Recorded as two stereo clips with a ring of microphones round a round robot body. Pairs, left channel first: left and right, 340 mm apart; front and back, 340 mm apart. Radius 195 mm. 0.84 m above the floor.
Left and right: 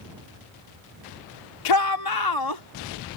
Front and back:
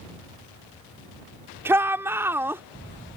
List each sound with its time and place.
1.6 s a shout: 95° left